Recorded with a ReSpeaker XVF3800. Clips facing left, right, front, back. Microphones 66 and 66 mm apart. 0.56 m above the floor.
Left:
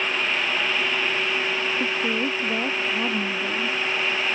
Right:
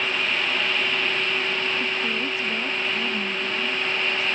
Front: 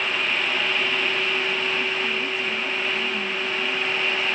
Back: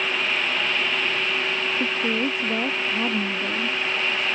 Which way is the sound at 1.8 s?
145° left.